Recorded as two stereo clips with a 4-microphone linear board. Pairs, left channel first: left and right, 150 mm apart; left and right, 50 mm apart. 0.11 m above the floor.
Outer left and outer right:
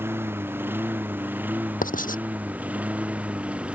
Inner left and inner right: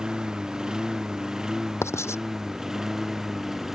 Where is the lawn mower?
15° right (ahead or behind); by 3.8 s 10° right (ahead or behind).